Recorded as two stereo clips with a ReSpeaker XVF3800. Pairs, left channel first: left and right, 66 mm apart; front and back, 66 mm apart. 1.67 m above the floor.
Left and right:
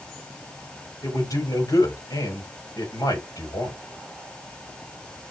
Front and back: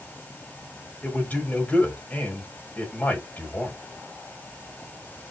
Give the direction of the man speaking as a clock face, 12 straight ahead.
10 o'clock.